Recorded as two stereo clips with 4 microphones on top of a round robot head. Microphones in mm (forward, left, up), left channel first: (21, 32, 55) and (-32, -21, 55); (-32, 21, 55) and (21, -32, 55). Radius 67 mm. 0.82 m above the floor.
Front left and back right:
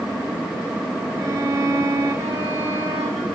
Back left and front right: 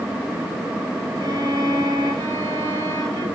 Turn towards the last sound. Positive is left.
turn(degrees=-75)